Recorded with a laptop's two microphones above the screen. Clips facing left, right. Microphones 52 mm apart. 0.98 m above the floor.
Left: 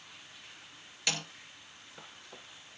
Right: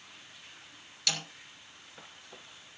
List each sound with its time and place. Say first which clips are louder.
1.1 s a snare drum: left 1 dB; 20° left (ahead or behind), 2.5 m